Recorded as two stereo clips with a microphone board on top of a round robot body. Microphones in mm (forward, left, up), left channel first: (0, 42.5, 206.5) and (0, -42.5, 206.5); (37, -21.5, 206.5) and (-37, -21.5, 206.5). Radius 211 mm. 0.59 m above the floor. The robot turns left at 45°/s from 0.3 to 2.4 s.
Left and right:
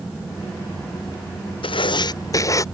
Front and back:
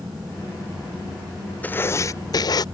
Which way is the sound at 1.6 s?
70° left.